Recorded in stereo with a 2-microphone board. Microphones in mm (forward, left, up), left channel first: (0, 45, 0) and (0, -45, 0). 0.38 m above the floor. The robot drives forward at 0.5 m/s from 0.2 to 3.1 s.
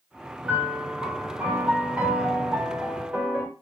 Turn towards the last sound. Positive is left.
turn(degrees=-15)  # may be behind; listen again after turning